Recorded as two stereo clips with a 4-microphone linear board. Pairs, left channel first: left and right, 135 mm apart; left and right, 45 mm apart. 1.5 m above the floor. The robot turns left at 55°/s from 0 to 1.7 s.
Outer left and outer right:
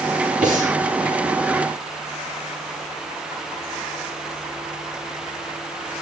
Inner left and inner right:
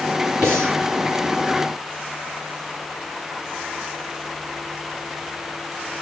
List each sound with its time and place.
0.4 s breathing: 70° right (ahead or behind), 6 m; by 0.8 s 80° right, 6 m